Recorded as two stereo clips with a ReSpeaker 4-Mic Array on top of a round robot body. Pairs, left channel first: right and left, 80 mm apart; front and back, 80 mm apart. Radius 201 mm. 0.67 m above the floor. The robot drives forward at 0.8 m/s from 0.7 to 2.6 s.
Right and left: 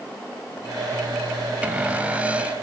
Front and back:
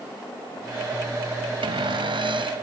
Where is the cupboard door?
165° left.